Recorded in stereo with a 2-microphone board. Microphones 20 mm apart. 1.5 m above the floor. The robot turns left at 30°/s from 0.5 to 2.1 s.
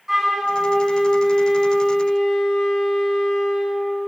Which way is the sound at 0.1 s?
160° right.